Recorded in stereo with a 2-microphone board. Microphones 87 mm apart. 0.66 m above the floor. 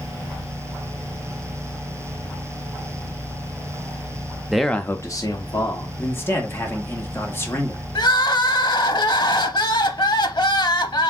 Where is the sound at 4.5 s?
5° right (ahead or behind), 0.6 m; by 5.9 s 60° left (ahead or behind), 1.1 m.